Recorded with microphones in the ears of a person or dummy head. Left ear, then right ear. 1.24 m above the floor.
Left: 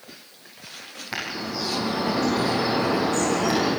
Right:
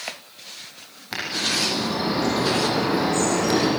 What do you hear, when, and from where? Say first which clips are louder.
1.1 s a bird: right 6 dB; centre (ahead or behind), 9 m